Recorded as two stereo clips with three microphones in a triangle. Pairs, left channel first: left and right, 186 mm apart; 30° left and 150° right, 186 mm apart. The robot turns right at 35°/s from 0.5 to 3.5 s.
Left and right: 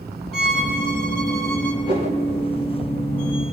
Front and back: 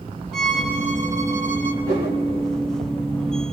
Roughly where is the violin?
Behind left.